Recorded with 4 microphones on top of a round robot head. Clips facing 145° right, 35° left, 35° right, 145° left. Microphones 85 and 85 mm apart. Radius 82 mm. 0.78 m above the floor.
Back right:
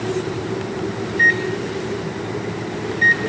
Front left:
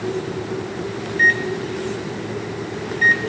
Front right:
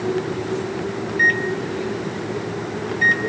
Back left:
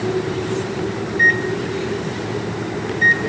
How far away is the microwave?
About 1.4 m.